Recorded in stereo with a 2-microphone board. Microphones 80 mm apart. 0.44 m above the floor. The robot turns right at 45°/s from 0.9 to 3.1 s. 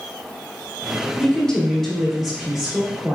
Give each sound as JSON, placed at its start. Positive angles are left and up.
{"t": 1.2, "sound": "a woman speaking", "side_deg": 15, "distance_m": 0.7}